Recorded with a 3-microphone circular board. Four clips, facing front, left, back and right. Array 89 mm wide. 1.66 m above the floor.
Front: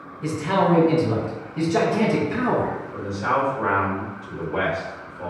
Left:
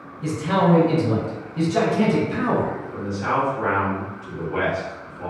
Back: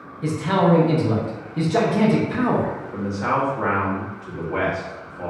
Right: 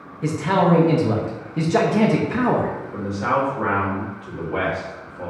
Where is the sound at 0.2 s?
110° right, 0.9 m.